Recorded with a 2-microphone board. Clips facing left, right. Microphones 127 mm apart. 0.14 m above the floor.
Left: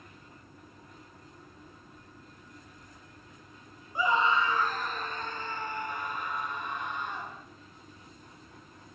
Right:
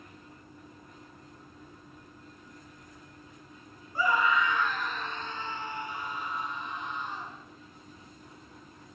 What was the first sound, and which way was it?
A scream, 20° left (ahead or behind).